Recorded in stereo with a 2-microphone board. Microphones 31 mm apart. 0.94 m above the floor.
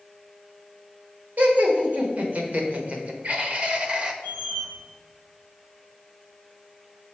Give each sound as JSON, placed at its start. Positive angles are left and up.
{"t": 1.4, "sound": "laughter", "side_deg": -70, "distance_m": 1.9}
{"t": 4.2, "sound": "a squeak", "side_deg": -70, "distance_m": 2.5}